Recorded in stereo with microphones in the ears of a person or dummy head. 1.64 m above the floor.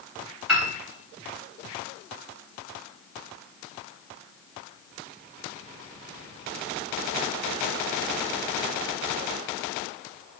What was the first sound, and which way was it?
A piano, 5° right (ahead or behind).